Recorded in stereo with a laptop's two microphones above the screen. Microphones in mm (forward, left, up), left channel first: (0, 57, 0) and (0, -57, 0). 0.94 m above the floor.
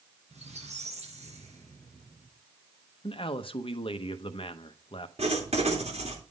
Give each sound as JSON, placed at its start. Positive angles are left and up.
{"t": 0.3, "sound": "a squeak", "side_deg": -75, "distance_m": 3.5}
{"t": 3.0, "sound": "a man speaking", "side_deg": 50, "distance_m": 0.7}
{"t": 5.2, "sound": "writing", "side_deg": -70, "distance_m": 2.5}